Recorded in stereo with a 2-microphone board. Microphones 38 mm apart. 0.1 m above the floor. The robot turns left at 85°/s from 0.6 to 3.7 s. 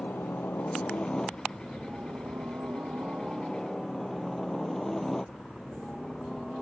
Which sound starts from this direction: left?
A helicopter, at 0.0 s.